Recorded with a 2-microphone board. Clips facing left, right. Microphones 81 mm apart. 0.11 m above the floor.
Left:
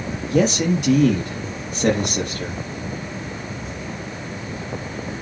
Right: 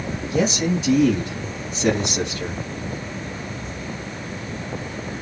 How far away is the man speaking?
About 4 m.